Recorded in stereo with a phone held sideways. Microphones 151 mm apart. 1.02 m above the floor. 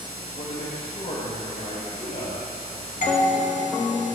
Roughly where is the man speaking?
Left.